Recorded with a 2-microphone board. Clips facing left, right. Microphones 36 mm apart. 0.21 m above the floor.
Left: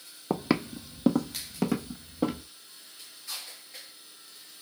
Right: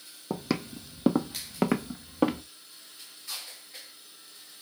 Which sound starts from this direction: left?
Footsteps, at 0.3 s.